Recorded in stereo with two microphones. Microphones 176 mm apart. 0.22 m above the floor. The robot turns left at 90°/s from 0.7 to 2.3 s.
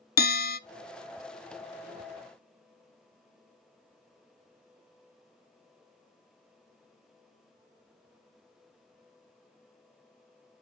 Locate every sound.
0.2 s a bell: 60° left (ahead or behind), 0.7 m